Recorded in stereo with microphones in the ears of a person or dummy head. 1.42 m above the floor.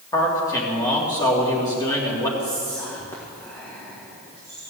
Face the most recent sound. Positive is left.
turn(degrees=15)  # may be behind; listen again after turning